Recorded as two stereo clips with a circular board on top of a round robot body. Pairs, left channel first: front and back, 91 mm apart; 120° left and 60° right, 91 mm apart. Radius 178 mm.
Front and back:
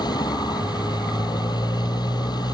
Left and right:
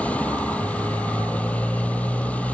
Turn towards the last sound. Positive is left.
turn(degrees=45)